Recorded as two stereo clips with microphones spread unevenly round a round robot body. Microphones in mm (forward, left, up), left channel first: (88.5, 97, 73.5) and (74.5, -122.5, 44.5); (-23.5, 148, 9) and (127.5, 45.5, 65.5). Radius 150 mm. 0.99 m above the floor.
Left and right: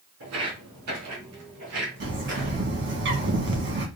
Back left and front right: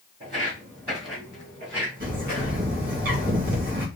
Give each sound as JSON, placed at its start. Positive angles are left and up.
{"t": 0.2, "sound": "footsteps", "azimuth_deg": -105, "distance_m": 2.5}
{"t": 2.0, "sound": "a bird", "azimuth_deg": -90, "distance_m": 1.4}